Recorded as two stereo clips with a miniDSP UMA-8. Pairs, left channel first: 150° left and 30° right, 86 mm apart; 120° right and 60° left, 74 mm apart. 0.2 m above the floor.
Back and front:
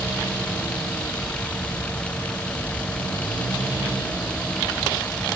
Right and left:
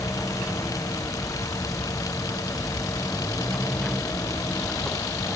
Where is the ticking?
I don't hear ticking.